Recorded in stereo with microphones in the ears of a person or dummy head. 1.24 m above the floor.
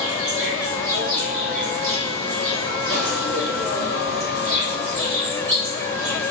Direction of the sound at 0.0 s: 60° right (ahead or behind).